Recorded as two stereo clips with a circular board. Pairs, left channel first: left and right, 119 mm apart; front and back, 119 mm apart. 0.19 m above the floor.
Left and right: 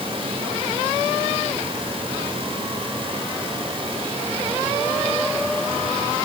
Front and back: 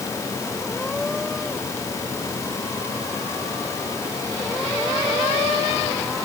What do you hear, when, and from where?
Only background noise.